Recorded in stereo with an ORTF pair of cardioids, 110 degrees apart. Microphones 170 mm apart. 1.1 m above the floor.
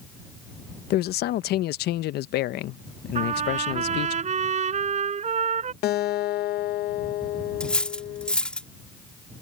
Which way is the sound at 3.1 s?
40° right.